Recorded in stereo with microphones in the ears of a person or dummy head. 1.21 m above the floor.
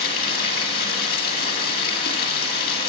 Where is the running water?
55° left (ahead or behind), 2.0 m.